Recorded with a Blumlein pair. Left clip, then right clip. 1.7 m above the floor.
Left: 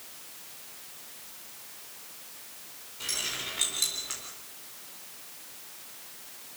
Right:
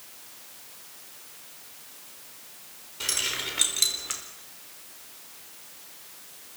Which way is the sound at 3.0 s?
65° right.